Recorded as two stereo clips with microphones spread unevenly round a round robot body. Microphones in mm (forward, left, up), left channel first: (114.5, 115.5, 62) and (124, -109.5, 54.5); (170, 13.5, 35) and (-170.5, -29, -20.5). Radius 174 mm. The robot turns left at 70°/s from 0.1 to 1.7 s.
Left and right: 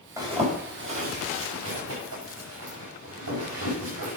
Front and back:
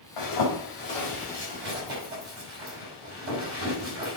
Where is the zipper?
10° right, 5.5 m; by 4.2 s 120° right, 5.5 m.